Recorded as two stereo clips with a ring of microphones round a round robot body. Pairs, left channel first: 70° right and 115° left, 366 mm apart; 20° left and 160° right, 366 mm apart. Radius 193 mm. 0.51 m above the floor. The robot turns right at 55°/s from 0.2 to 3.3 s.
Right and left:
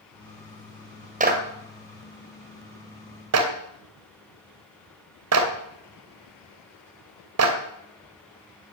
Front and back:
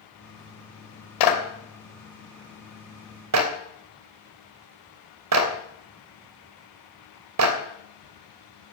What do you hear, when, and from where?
1.2 s a clap: 45° left, 2.5 m; by 7.6 s 160° left, 2.5 m